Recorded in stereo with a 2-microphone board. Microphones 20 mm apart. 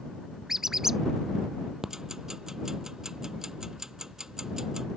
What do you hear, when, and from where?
0.5 s a squeak: 20° right (ahead or behind)
1.8 s ticking: 25° right (ahead or behind)